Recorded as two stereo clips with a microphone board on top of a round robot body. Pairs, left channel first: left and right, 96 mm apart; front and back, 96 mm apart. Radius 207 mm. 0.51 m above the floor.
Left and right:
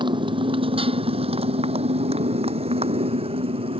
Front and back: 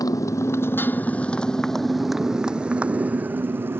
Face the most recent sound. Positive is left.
turn(degrees=-110)